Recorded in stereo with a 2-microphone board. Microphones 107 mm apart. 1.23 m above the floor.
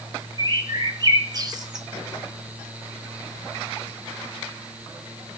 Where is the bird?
35° right (ahead or behind), 1.5 m.